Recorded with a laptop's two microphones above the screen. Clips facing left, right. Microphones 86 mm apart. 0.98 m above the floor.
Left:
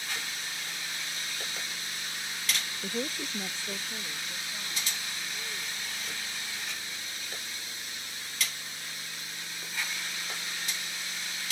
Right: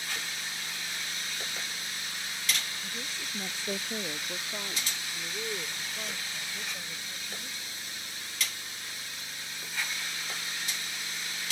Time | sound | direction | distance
2.8 | a woman speaking | 70° left (ahead or behind) | ?